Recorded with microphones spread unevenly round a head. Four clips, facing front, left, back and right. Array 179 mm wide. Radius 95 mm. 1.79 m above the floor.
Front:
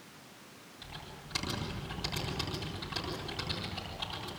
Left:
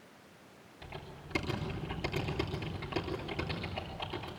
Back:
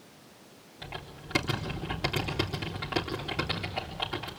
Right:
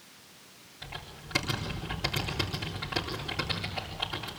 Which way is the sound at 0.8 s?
170° left.